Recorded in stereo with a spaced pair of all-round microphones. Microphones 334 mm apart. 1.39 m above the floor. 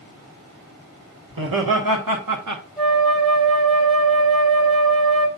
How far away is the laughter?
About 1.9 m.